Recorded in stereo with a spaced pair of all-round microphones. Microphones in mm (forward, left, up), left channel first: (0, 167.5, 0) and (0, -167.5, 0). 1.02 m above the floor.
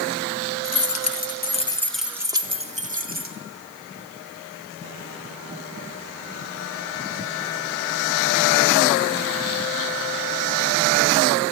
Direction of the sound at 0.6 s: 65° left (ahead or behind).